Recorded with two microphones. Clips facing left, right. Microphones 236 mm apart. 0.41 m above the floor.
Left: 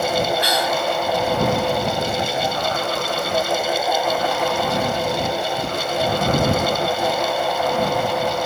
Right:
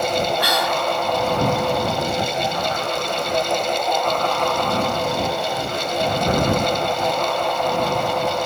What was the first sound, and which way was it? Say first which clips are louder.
Whispering: left 1 dB; 65° right (ahead or behind).